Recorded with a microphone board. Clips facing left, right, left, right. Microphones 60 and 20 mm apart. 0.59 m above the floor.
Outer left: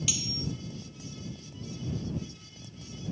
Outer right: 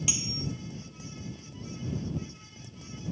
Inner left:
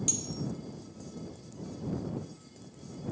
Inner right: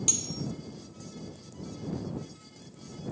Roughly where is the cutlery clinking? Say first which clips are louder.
Even, inner right 6 dB; right.